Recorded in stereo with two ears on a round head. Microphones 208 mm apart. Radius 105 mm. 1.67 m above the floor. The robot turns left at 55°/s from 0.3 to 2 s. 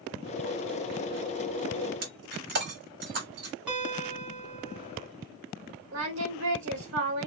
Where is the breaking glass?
50° right (ahead or behind), 3 m.